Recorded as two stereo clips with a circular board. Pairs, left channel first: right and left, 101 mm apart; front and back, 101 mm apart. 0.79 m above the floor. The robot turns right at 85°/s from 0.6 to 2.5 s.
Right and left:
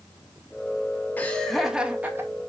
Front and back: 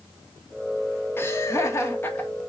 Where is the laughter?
40° right, 1.0 m; by 2.3 s 60° left, 1.0 m.